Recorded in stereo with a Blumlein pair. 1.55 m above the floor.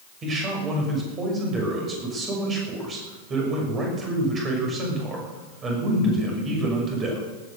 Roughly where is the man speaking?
Ahead right.